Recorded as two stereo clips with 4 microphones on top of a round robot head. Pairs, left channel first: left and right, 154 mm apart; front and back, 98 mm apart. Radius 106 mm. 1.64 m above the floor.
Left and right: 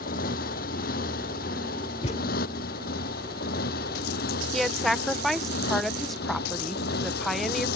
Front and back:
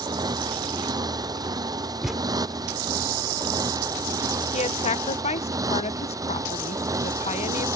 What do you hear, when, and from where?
0.0 s a motorcycle: 130° left; by 7.8 s 125° left
2.0 s a thud: 95° left
4.5 s a woman speaking: straight ahead